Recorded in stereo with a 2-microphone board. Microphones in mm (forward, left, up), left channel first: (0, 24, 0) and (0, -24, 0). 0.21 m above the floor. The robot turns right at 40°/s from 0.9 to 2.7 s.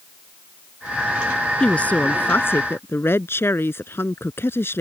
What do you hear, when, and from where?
1.6 s a woman speaking: 25° left; by 4.8 s 70° left